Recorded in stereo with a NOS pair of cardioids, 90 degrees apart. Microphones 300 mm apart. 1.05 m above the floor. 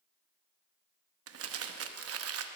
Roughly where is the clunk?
I don't hear a clunk.